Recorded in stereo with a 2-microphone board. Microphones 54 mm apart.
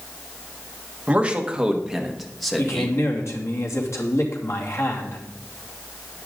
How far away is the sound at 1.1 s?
About 1.6 m.